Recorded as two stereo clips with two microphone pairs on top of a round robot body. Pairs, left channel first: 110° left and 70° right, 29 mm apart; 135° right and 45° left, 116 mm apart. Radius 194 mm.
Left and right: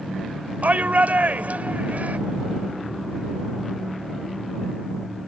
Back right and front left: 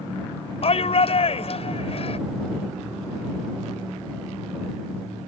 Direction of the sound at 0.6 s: 100° right.